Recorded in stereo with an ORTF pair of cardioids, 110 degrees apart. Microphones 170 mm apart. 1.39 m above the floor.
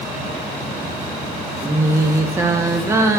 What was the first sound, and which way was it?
Singing, 15° right.